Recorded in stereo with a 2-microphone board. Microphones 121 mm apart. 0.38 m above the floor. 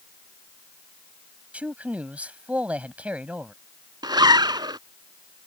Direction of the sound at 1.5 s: 10° right (ahead or behind).